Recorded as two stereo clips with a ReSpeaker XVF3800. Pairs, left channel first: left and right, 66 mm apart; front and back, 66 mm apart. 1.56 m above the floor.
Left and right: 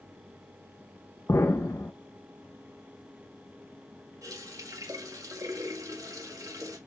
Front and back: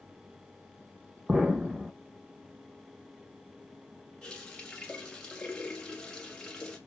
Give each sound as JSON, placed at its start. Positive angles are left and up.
{"t": 1.3, "sound": "an explosion", "azimuth_deg": 105, "distance_m": 0.9}
{"t": 4.2, "sound": "a running tap", "azimuth_deg": -75, "distance_m": 1.8}